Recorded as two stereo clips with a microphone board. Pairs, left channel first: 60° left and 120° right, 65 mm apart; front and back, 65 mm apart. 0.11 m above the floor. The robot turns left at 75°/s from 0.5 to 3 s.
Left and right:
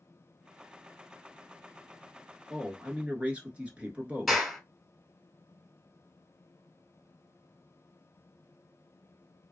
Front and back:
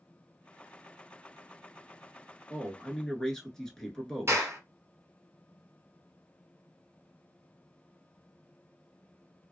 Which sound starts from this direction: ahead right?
A man speaking, at 2.5 s.